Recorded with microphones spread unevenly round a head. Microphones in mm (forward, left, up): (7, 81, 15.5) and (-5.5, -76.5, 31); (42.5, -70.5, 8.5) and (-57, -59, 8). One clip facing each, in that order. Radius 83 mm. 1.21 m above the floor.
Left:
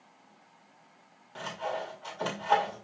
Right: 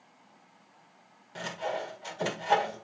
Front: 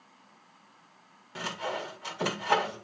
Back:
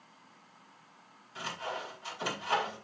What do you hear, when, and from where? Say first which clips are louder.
1.4 s sawing: right 1 dB, front 4 dB; 20° right, 1.9 m